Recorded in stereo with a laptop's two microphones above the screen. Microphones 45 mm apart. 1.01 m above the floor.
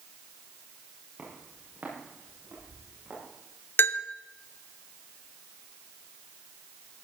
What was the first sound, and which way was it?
Footsteps, 40° right (ahead or behind).